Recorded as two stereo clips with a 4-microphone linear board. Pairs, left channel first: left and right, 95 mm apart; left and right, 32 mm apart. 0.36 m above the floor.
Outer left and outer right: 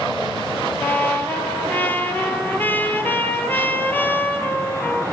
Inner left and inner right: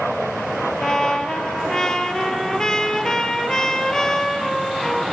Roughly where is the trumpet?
Centre.